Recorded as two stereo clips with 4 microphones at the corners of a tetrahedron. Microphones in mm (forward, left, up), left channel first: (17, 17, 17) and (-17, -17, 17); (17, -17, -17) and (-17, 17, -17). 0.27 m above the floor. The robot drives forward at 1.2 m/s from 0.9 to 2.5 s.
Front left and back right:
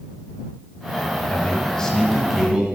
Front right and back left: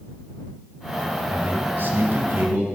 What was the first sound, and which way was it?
A man speaking, 85° left.